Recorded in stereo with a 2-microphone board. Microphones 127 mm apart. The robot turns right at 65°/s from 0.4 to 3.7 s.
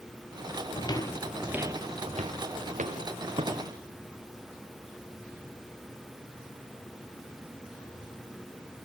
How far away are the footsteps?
About 1.2 m.